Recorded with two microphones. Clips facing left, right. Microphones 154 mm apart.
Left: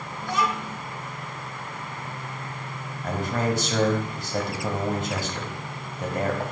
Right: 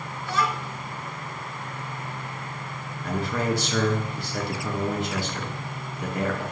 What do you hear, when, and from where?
0.2 s a child speaking: 15° left (ahead or behind), 0.9 m
3.0 s a man speaking: 45° left (ahead or behind), 1.7 m